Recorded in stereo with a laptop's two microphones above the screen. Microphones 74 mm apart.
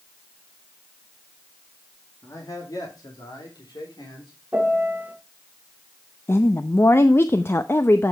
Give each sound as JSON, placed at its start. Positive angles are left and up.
{"t": 2.2, "sound": "a man speaking", "side_deg": 50, "distance_m": 2.0}
{"t": 4.5, "sound": "a piano", "side_deg": -25, "distance_m": 1.2}
{"t": 6.3, "sound": "a woman speaking", "side_deg": 35, "distance_m": 0.6}